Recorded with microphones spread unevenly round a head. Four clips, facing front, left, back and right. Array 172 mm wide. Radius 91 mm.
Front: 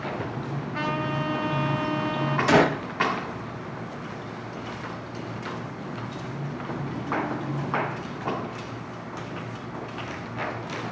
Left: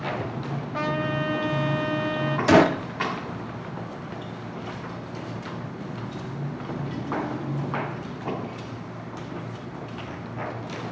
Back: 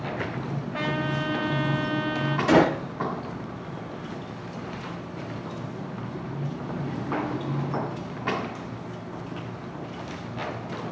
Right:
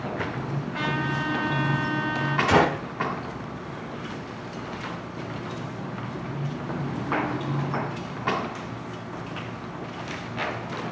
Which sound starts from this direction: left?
A gunshot, at 2.5 s.